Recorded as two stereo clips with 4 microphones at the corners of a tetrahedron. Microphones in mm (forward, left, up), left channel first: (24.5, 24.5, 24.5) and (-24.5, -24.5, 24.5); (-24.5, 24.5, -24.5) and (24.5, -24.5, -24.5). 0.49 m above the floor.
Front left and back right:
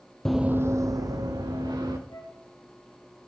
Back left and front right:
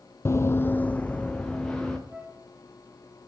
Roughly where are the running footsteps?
Behind left.